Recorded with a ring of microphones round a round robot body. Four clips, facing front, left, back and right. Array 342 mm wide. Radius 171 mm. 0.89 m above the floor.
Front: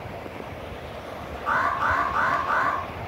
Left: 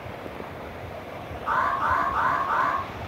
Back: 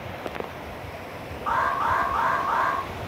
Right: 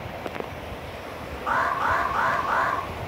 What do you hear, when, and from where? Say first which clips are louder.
1.5 s an alarm: even, even; 55° right, 3.5 m